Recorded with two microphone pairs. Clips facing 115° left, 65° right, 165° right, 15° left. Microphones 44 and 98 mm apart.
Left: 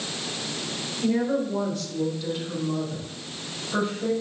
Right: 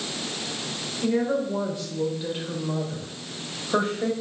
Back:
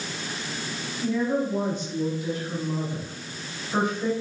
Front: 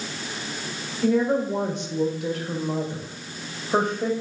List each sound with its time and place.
1.0 s a woman speaking: 25° left, 2 m; by 4.1 s 20° right, 2.5 m